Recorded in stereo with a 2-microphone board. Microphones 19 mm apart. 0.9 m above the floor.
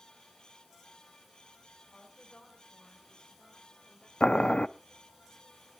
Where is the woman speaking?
70° left (ahead or behind), 6.5 m; by 4.1 s 60° left (ahead or behind), 4.5 m.